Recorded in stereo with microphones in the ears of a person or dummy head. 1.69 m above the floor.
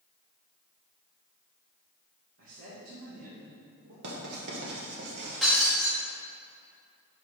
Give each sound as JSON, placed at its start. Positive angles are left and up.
{"t": 2.4, "sound": "a man speaking", "side_deg": -75, "distance_m": 1.8}
{"t": 4.0, "sound": "writing", "side_deg": -65, "distance_m": 1.7}
{"t": 5.4, "sound": "breaking glass", "side_deg": 0, "distance_m": 1.8}